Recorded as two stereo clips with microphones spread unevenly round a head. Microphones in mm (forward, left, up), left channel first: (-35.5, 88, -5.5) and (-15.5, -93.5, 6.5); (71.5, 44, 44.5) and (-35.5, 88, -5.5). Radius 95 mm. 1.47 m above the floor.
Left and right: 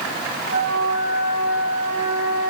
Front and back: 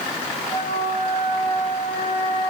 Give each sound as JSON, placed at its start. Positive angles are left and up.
{"t": 0.5, "sound": "a flute", "azimuth_deg": -80, "distance_m": 5.0}